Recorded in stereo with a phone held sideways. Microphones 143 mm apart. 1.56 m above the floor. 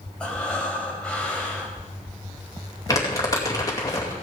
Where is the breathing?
5° left (ahead or behind), 3.5 m.